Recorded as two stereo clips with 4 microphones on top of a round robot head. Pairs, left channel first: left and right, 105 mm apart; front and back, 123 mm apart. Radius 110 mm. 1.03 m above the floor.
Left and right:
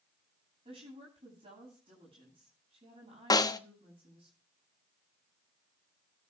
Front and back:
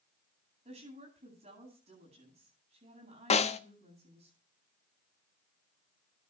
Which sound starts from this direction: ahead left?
A snare drum, at 3.3 s.